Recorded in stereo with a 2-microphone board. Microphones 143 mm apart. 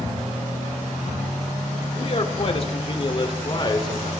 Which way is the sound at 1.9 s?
45° left (ahead or behind).